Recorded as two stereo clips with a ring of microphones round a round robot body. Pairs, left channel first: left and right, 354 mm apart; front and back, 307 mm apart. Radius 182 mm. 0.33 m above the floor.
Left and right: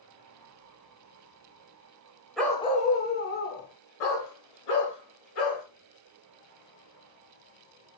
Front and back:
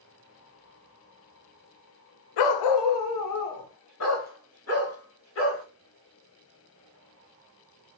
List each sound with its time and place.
2.4 s a dog barking: straight ahead, 0.5 m; by 5.6 s 50° left, 2 m